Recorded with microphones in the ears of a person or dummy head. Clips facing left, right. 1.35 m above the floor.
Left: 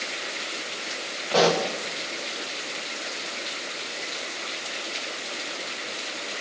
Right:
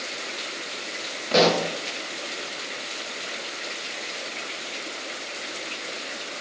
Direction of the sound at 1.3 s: 25° right (ahead or behind).